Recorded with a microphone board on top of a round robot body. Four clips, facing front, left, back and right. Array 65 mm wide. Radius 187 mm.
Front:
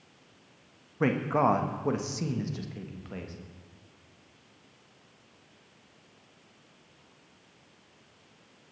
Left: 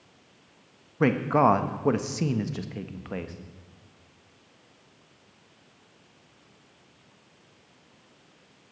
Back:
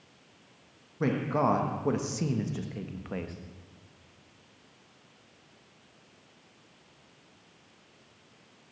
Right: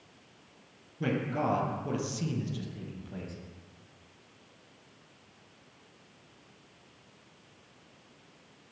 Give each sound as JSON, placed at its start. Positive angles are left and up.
{"t": 1.0, "sound": "a man speaking", "azimuth_deg": 70, "distance_m": 1.4}